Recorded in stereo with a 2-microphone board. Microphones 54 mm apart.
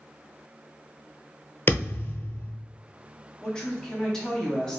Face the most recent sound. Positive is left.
turn(degrees=10)  # may be behind; listen again after turning